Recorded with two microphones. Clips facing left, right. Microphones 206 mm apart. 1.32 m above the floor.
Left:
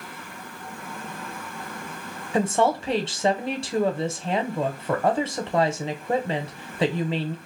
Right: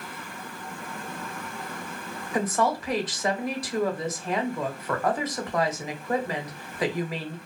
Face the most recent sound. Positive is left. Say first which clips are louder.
# left 4 dB
turn(degrees=25)  # may be behind; listen again after turning